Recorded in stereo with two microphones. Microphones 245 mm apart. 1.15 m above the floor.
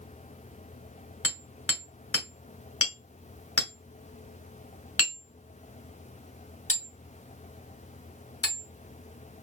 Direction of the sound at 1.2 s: 60° left (ahead or behind).